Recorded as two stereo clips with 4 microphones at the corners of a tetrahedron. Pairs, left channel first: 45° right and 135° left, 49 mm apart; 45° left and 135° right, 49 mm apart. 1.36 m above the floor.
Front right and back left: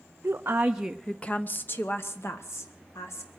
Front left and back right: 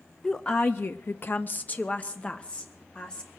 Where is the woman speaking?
105° left, 0.8 m; by 3.3 s 25° right, 2.5 m.